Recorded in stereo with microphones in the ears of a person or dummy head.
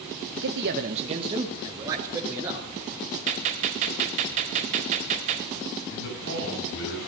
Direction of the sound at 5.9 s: 60° left (ahead or behind).